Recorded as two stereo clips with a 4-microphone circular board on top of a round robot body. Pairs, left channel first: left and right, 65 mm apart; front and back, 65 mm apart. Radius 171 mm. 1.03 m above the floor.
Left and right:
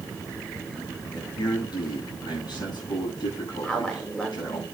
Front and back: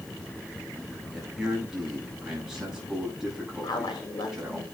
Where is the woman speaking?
15° left, 4 m.